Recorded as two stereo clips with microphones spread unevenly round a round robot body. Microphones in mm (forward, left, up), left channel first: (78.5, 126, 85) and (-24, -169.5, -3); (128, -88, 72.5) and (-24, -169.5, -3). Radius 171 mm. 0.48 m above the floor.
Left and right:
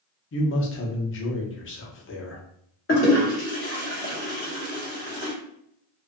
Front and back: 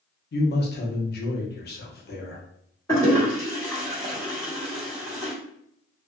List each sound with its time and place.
0.3 s a man speaking: 25° left, 0.7 m
2.9 s a toilet flushing: 135° left, 1.6 m